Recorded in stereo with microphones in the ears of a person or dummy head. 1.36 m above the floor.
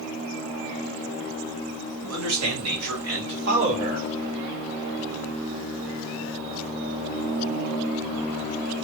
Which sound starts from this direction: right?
A man speaking, at 2.0 s.